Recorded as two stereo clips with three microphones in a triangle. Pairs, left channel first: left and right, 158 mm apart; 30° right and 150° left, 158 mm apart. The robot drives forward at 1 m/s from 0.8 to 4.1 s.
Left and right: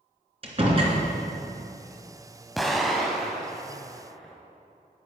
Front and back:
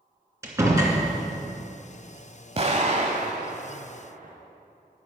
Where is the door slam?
140° right, 2.5 m.